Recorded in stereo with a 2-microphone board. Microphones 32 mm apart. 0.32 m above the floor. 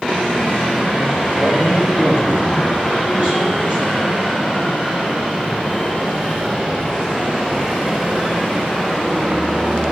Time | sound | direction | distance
1.3 | a man speaking | 30° right (ahead or behind) | 5.5 m